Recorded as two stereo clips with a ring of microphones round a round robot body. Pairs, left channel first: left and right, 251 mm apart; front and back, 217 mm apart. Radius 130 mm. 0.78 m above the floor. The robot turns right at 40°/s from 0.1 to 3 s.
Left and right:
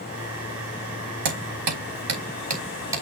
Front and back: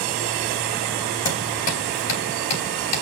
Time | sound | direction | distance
1.2 | hammering | 80° right | 4.5 m